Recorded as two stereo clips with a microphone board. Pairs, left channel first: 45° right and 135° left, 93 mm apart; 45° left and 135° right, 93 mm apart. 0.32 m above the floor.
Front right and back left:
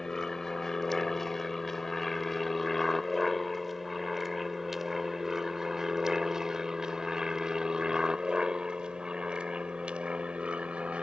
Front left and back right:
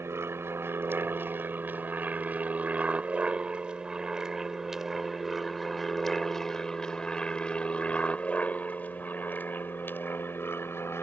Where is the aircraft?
125° right; by 11.0 s 70° left.